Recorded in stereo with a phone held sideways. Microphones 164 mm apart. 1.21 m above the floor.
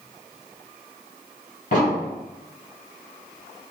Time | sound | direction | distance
1.7 | an explosion | 55° left (ahead or behind) | 1.7 m